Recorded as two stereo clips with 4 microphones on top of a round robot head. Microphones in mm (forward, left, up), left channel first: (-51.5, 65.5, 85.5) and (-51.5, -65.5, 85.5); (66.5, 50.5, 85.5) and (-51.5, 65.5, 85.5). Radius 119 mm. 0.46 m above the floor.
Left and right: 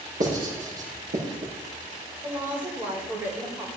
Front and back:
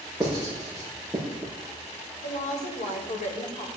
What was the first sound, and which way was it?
Writing, 95° right.